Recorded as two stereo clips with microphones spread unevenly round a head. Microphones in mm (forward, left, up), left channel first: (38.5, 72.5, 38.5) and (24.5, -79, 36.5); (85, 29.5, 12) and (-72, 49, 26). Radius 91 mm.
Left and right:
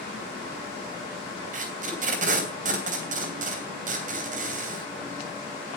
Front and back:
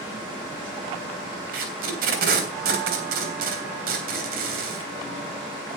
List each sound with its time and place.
1.5 s tape being pulled: 145° right, 3 m